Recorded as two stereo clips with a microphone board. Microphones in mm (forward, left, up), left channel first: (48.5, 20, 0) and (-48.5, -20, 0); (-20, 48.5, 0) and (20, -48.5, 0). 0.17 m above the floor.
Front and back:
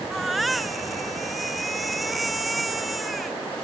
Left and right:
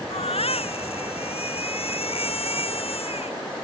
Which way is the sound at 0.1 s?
110° left.